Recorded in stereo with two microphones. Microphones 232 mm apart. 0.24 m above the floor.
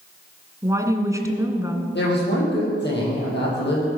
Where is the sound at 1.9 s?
50° left (ahead or behind), 7.5 m.